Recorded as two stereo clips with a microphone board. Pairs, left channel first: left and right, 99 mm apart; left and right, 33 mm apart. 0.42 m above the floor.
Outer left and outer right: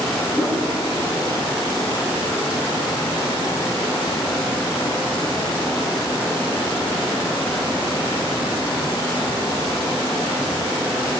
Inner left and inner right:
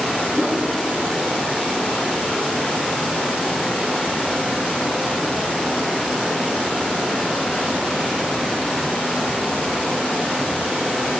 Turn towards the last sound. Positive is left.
turn(degrees=-10)  # may be behind; listen again after turning